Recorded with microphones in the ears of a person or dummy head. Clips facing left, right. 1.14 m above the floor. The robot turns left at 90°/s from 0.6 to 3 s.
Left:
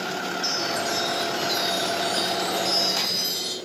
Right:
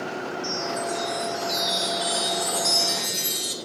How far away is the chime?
About 7 m.